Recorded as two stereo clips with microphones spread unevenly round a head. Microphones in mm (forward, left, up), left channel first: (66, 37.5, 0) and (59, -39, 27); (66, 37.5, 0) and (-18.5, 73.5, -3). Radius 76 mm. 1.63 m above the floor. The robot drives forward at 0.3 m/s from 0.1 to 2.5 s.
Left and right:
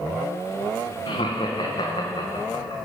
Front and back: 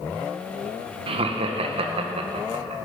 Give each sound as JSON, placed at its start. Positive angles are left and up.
{"t": 1.1, "sound": "laughter", "azimuth_deg": 135, "distance_m": 1.6}